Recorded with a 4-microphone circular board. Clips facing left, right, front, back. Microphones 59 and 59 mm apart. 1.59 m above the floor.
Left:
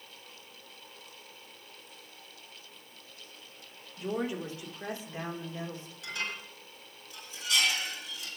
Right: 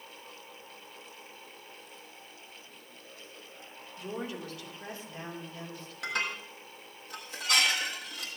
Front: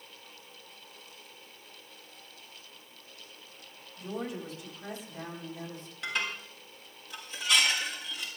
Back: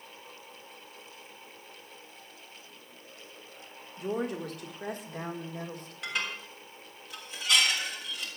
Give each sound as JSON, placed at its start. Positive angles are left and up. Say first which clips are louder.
{"t": 4.0, "sound": "a woman speaking", "louder": "left 5 dB, back 5 dB", "azimuth_deg": 160, "distance_m": 4.0}
{"t": 6.0, "sound": "dishes clattering", "louder": "right 4 dB, front 1 dB", "azimuth_deg": -90, "distance_m": 6.5}